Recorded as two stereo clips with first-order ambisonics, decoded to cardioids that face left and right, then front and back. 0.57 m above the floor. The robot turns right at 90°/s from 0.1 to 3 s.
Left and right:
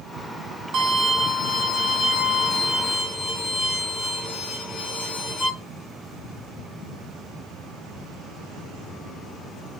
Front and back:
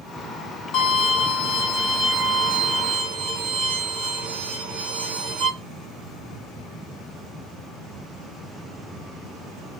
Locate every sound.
0.7 s a violin: 40° right, 1.8 m; by 5.5 s 165° left, 1.8 m